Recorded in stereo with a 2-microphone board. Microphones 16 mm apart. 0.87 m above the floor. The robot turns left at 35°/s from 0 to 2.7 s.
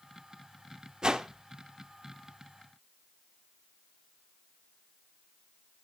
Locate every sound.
1.0 s a whoosh: 50° right (ahead or behind), 0.8 m; by 1.3 s 60° right (ahead or behind), 0.8 m